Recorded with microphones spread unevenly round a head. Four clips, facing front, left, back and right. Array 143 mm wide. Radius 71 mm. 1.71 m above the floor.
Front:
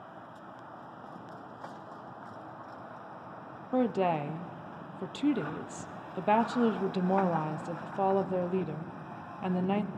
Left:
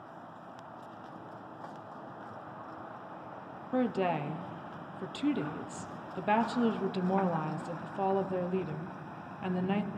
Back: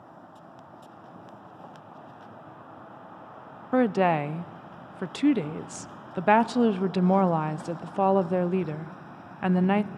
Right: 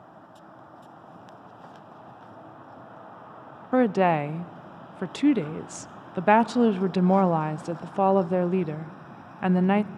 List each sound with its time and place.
3.7 s a woman speaking: 105° right, 0.5 m